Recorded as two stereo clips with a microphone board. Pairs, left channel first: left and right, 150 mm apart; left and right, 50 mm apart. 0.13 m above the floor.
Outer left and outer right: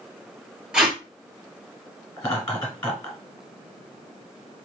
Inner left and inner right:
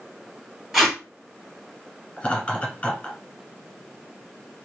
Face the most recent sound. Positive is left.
turn(degrees=15)  # may be behind; listen again after turning